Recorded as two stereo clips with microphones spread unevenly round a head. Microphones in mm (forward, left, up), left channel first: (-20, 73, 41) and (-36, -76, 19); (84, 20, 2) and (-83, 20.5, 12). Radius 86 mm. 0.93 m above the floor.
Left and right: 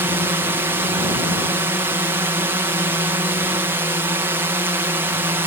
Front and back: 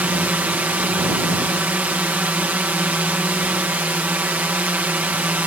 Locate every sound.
0.0 s a drone: 110° right